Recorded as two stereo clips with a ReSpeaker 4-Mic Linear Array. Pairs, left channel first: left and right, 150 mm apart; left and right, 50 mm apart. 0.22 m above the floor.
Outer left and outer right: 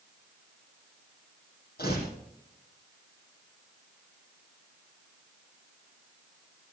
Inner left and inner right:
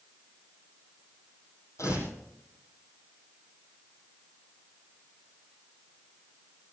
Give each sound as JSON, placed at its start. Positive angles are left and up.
{"t": 1.8, "sound": "tearing paper", "side_deg": 75, "distance_m": 6.5}